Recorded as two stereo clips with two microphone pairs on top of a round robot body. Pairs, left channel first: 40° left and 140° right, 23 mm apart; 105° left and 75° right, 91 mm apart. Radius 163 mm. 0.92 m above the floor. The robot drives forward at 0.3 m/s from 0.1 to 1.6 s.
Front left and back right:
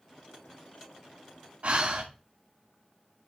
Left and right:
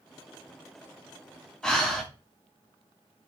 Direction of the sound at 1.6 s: 170° right.